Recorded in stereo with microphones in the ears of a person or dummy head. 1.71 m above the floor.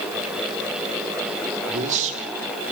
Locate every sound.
1.7 s a man speaking: 45° right (ahead or behind), 3 m